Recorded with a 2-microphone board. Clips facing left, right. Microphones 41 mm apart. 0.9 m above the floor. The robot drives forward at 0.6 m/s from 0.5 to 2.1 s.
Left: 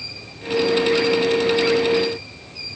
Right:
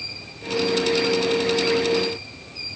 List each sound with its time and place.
Only background noise.